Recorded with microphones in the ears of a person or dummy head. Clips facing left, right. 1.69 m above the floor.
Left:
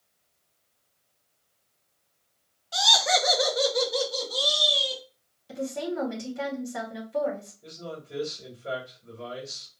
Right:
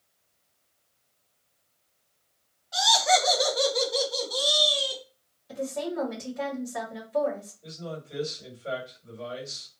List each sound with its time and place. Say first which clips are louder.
2.7 s laughter: right 3 dB; 45° left (ahead or behind), 0.8 m; by 5.0 s centre (ahead or behind), 2.5 m
5.5 s a woman speaking: even; 45° left (ahead or behind), 1.7 m
7.6 s a man speaking: right 1 dB; 30° left (ahead or behind), 2.5 m